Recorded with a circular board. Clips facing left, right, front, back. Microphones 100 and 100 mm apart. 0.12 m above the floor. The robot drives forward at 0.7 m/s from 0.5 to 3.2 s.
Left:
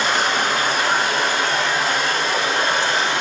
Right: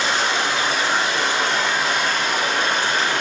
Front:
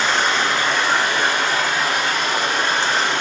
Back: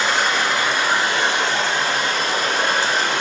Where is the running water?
95° left, 1.8 m; by 3.2 s 145° left, 2.5 m.